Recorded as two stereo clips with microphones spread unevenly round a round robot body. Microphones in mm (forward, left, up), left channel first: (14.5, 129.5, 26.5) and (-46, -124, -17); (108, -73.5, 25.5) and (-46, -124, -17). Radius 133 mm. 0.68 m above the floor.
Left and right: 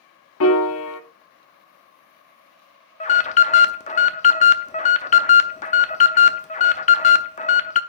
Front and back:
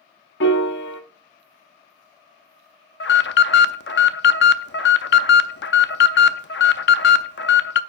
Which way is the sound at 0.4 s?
35° left.